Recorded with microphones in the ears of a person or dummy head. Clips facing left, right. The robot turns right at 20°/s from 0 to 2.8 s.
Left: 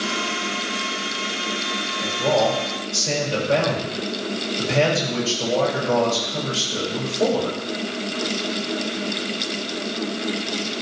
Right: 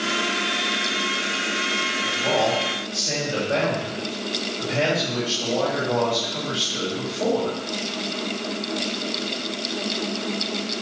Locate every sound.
2.0 s a man speaking: 85° left, 7 m; by 7.6 s 70° left (ahead or behind), 7 m